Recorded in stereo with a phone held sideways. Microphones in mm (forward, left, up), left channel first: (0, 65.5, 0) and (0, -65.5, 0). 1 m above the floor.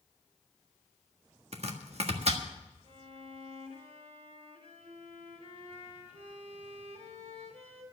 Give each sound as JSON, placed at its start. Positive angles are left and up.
{"t": 1.5, "sound": "chopping", "side_deg": -55, "distance_m": 1.5}
{"t": 2.8, "sound": "a violin", "side_deg": -55, "distance_m": 2.5}